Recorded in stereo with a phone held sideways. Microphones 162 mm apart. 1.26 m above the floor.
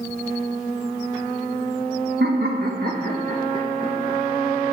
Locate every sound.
2.2 s laughter: 85° right, 1.2 m; by 4.2 s 30° right (ahead or behind), 1.7 m